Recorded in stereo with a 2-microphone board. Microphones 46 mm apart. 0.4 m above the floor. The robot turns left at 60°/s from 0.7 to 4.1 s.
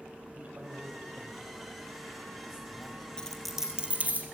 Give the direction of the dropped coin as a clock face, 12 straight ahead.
11 o'clock.